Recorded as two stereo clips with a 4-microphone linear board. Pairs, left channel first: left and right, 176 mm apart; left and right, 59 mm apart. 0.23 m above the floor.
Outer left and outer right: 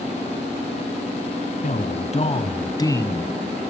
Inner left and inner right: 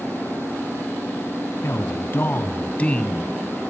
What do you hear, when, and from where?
1.6 s a man speaking: 50° left (ahead or behind), 2.5 m; by 3.6 s centre (ahead or behind), 2 m